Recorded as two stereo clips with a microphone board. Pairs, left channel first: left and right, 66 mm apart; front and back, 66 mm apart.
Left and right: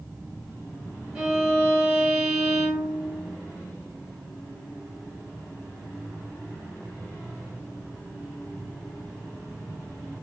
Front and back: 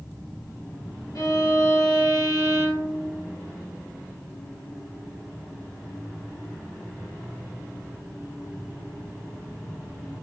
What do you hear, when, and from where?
1.1 s a violin: 15° right, 1.5 m